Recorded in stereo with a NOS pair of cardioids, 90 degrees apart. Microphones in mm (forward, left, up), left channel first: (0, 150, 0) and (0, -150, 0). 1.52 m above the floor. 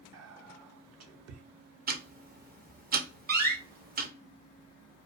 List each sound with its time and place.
0.1 s whispering: 55° right, 0.8 m
1.9 s ticking: 30° right, 0.6 m
3.3 s a door slam: 35° right, 0.9 m